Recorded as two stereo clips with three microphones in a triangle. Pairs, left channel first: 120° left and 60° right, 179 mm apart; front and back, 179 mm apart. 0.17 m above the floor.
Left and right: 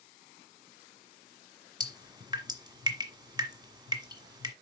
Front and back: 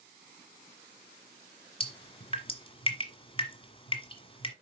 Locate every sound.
1.8 s dripping: 20° right, 1.5 m